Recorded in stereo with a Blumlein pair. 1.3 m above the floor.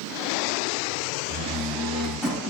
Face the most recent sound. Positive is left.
turn(degrees=10)